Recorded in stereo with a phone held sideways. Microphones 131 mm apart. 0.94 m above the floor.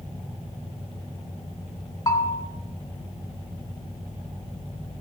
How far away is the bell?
About 2.5 m.